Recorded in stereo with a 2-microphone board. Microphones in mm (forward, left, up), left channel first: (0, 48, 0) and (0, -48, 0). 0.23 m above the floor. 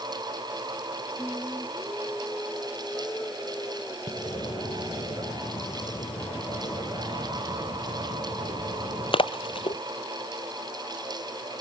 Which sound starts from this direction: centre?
Singing, at 1.2 s.